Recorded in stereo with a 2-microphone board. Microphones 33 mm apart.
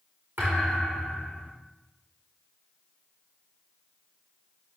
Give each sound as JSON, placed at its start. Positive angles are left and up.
{"t": 0.4, "sound": "a thud", "side_deg": -85, "distance_m": 5.5}